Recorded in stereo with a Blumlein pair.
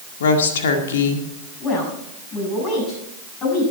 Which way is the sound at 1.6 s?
25° left.